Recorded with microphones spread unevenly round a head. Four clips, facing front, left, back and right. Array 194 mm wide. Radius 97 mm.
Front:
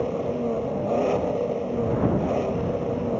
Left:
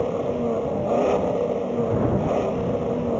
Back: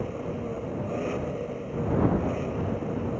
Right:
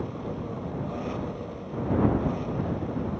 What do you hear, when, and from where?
0.0 s an engine running: 65° left